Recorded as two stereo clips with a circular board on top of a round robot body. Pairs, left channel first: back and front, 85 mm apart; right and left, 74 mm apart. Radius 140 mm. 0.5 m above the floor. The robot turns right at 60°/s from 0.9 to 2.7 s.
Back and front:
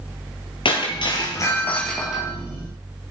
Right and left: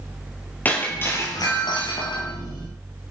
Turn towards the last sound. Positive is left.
turn(degrees=-50)